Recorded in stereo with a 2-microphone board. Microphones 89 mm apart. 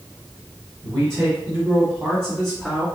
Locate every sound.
0.8 s a man speaking: 35° right (ahead or behind), 2.0 m; by 2.9 s 5° right (ahead or behind), 2 m